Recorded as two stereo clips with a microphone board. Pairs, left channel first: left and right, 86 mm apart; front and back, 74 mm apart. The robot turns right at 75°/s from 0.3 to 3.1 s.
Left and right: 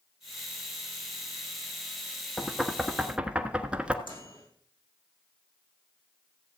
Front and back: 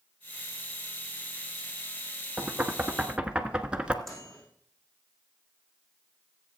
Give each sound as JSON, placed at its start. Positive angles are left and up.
{"t": 2.4, "sound": "knocking", "azimuth_deg": 170, "distance_m": 1.1}
{"t": 4.0, "sound": "a microwave", "azimuth_deg": 90, "distance_m": 6.0}